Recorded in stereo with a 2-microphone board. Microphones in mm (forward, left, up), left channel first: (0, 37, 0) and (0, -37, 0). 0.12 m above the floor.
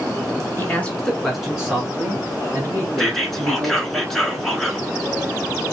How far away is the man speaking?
About 1.3 m.